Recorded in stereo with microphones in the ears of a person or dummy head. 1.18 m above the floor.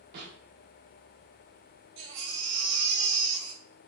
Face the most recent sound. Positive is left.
turn(degrees=-60)  # may be behind; listen again after turning